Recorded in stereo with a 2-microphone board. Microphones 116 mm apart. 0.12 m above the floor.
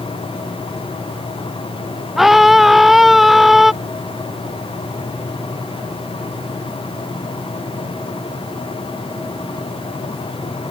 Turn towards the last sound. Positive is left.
turn(degrees=0)  # may be behind; listen again after turning